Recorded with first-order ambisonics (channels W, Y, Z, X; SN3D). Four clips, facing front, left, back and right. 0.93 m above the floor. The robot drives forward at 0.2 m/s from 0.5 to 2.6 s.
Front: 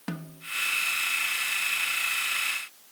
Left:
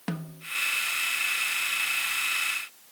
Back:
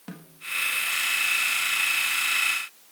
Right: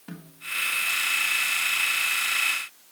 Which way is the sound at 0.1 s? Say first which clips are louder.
Left 7 dB, front 5 dB; 65° left.